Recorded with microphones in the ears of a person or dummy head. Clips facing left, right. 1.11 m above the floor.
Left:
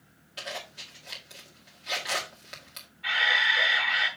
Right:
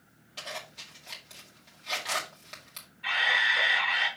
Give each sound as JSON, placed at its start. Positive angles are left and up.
{"t": 0.4, "sound": "a zipper", "side_deg": 10, "distance_m": 2.0}
{"t": 3.0, "sound": "a camera shutter", "side_deg": -20, "distance_m": 5.0}